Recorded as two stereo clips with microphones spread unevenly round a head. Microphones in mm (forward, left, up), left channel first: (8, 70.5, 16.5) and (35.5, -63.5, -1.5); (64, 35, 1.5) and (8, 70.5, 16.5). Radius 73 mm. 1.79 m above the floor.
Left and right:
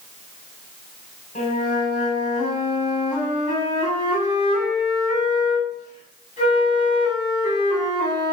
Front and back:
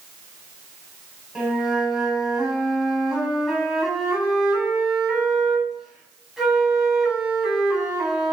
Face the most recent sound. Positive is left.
turn(degrees=65)